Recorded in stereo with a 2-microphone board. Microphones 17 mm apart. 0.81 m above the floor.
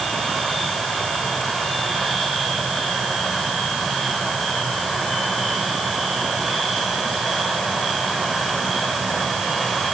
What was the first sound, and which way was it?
Only background noise.